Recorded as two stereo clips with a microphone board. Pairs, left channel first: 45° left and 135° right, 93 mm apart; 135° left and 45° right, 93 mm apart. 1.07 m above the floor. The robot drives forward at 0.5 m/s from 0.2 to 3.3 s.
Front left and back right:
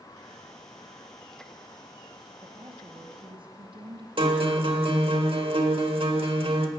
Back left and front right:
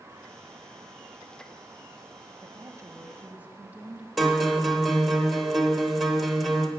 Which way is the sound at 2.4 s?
90° right.